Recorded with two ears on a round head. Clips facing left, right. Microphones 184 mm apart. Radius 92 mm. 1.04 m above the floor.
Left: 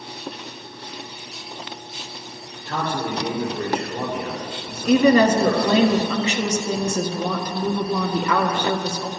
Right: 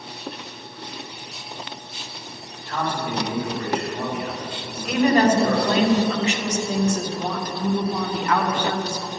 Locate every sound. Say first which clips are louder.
2.6 s a man speaking: left 1 dB; 45° left (ahead or behind), 3 m
4.8 s a woman speaking: left 3 dB; 75° left (ahead or behind), 1.6 m